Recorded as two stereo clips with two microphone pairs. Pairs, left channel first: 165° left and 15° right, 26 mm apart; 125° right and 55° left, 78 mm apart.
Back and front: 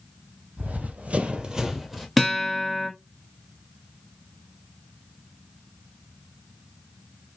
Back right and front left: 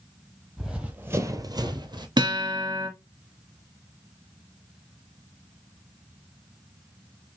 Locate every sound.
0.6 s running footsteps: 30° right, 1.3 m; by 2.1 s 75° left, 1.3 m
2.2 s a guitar: 80° left, 1.5 m